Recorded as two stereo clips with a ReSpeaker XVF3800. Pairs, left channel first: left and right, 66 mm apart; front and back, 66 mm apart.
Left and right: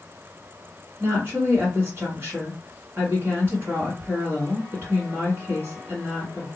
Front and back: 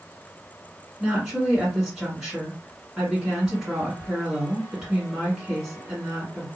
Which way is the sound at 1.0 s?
110° right.